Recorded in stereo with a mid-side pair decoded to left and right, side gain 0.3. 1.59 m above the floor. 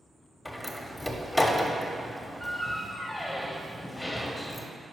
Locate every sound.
0.5 s a door slam: 25° left, 1.0 m